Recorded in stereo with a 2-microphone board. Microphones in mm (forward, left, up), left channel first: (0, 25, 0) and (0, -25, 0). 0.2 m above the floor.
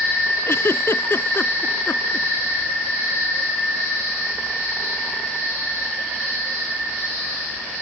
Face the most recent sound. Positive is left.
turn(degrees=55)  # may be behind; listen again after turning